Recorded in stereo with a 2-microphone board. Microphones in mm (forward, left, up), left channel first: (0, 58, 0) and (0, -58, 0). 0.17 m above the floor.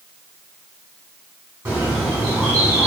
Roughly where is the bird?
Centre.